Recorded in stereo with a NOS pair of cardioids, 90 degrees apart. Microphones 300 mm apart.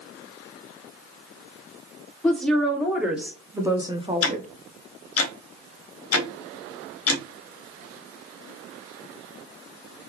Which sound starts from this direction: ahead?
A woman speaking, at 2.2 s.